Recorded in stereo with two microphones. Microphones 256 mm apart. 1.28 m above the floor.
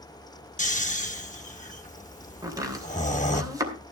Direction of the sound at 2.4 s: 15° right (ahead or behind).